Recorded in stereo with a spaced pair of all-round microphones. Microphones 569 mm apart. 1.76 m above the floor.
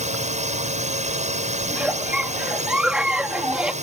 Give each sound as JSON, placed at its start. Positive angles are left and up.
{"t": 0.0, "sound": "a drone", "side_deg": -10}
{"t": 1.7, "sound": "a giggle", "side_deg": 0}